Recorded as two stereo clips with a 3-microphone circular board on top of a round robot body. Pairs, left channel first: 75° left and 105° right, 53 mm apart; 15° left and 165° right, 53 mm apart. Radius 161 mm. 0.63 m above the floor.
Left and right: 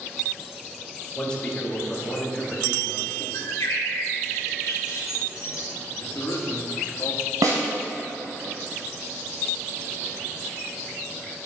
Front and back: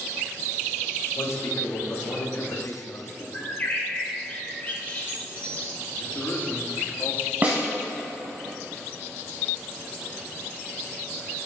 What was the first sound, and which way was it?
A man speaking, 5° left.